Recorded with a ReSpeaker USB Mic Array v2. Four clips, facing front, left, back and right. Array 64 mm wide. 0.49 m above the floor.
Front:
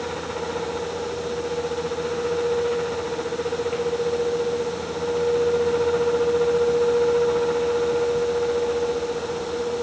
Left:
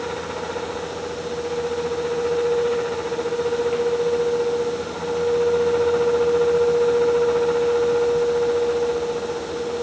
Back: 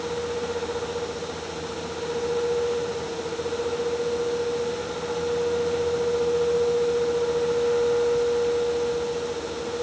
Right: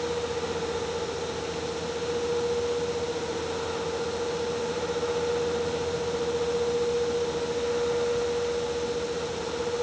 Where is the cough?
I don't hear a cough.